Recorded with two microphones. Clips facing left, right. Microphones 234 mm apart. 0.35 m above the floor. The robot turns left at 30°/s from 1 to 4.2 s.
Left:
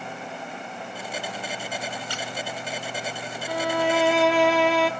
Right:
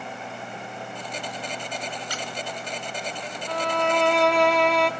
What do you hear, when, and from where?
2.1 s a squeak: 30° left (ahead or behind), 1.7 m; by 2.3 s 25° left (ahead or behind), 1.7 m
3.5 s a violin: 10° left (ahead or behind), 0.6 m; by 4.9 s centre (ahead or behind), 0.6 m